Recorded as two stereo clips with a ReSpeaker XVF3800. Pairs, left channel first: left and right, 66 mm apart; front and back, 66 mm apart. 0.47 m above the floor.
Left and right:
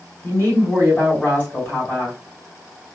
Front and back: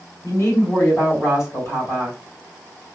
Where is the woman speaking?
35° left, 2.5 m.